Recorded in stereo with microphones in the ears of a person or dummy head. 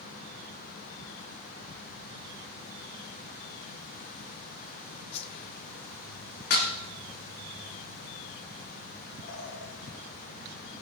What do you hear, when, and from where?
5.1 s a whoosh: 30° left (ahead or behind), 0.8 m
6.5 s dishes clattering: 55° left (ahead or behind), 1.8 m
9.2 s a bird: 65° left (ahead or behind), 4 m